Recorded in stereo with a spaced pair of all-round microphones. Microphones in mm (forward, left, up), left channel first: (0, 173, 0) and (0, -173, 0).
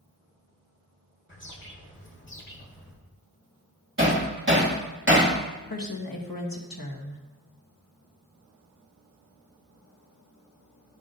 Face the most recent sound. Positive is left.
turn(degrees=75)  # may be behind; listen again after turning